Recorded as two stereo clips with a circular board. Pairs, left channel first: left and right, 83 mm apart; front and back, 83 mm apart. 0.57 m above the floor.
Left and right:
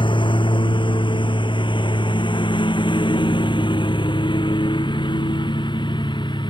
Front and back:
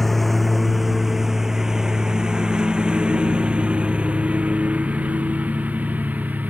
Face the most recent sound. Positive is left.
turn(degrees=110)